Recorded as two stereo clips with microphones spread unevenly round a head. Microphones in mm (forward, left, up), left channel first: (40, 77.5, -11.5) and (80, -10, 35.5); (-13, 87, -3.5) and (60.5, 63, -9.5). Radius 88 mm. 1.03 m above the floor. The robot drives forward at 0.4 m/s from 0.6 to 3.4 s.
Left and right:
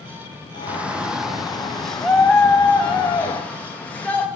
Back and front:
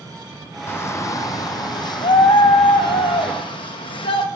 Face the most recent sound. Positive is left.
turn(degrees=180)